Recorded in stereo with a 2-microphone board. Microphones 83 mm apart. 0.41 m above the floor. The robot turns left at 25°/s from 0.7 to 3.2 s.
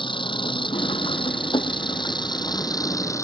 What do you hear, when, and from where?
0.0 s an engine running: 100° left; by 3.2 s 40° left